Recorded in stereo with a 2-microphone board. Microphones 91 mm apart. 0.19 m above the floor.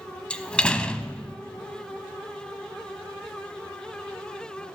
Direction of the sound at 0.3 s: 10° left (ahead or behind).